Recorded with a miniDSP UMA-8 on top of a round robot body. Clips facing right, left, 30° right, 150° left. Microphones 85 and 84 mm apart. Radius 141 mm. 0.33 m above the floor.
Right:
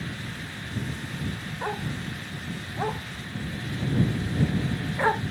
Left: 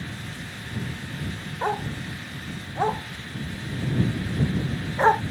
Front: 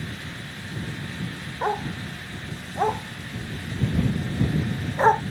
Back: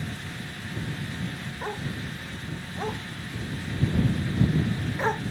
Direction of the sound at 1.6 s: 25° left.